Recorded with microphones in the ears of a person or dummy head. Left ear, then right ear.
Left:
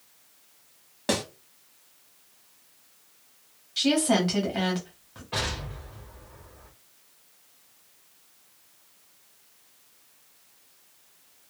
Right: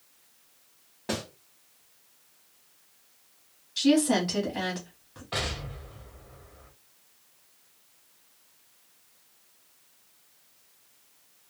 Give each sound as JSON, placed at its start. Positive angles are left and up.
{"t": 1.1, "sound": "a snare drum", "side_deg": 35, "distance_m": 1.1}
{"t": 3.8, "sound": "a woman speaking", "side_deg": 15, "distance_m": 1.0}
{"t": 5.3, "sound": "an explosion", "side_deg": -20, "distance_m": 0.7}